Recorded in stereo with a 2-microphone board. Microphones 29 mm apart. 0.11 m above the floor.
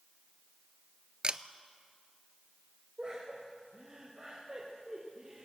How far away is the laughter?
About 4 m.